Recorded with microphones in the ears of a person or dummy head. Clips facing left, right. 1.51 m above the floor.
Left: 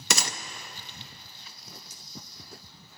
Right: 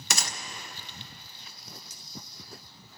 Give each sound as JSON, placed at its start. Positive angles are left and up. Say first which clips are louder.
{"t": 0.1, "sound": "a gunshot", "louder": "left 4 dB", "side_deg": 55, "distance_m": 0.5}
{"t": 1.9, "sound": "cutlery clinking", "louder": "left 1 dB", "side_deg": -65, "distance_m": 1.8}